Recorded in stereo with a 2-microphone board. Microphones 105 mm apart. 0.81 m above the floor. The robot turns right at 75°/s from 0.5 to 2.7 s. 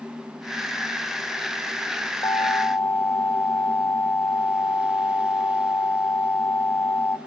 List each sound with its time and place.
2.2 s an alarm: 125° left, 0.9 m; by 7.2 s 160° left, 0.9 m